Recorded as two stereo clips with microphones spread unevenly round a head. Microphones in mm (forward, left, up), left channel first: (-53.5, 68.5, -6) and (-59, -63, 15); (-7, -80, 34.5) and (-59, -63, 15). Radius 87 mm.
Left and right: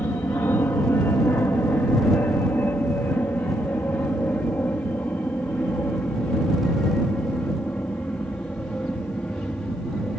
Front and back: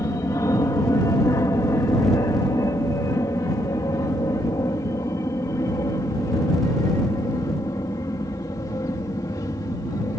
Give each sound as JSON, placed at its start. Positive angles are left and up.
{"t": 0.0, "sound": "an aircraft", "azimuth_deg": 15}